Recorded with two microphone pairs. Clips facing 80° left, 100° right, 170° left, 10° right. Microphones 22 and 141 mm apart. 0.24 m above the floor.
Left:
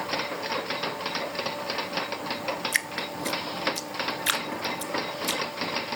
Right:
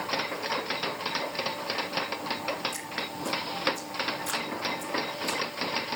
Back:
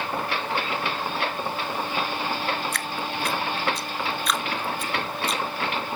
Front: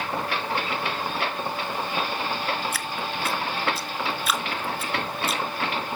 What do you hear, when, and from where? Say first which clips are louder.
2.7 s dripping: left 6 dB, back 1 dB; 75° left, 0.7 m